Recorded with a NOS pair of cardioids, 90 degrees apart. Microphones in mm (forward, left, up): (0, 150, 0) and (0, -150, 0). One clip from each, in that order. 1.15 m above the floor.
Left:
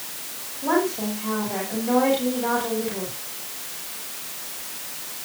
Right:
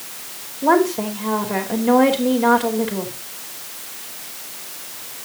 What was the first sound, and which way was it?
A woman speaking, 65° right.